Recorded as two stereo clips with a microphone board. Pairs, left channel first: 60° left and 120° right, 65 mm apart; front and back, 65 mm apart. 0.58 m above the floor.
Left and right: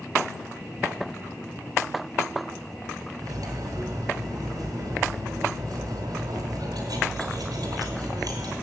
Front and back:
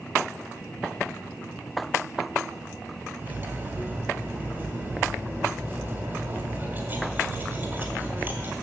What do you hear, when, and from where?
3.2 s cutlery clinking: 125° right, 2 m